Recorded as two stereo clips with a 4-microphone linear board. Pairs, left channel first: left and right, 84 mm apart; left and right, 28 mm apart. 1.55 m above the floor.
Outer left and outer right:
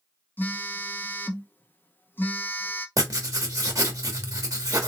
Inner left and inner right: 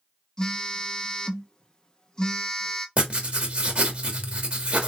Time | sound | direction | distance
0.4 | a phone buzzing | 25° left (ahead or behind) | 0.7 m
3.0 | writing | 45° right (ahead or behind) | 1.3 m